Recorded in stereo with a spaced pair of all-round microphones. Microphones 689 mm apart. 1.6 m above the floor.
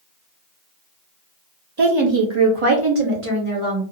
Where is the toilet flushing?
I don't hear a toilet flushing.